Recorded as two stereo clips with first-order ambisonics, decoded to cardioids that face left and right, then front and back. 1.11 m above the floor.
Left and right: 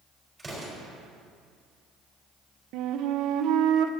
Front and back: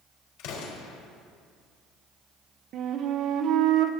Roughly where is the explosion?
Ahead.